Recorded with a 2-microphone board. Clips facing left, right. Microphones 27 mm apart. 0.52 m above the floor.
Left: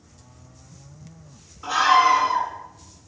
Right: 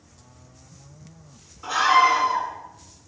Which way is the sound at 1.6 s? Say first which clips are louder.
Left 1 dB; 5° left (ahead or behind).